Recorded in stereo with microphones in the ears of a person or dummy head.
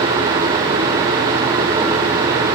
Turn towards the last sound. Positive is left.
No sound to turn to.